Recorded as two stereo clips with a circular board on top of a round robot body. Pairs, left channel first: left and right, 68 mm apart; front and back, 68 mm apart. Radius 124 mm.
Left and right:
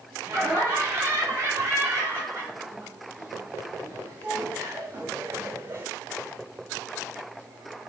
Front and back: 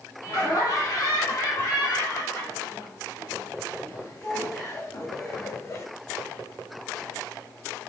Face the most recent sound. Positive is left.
turn(degrees=-40)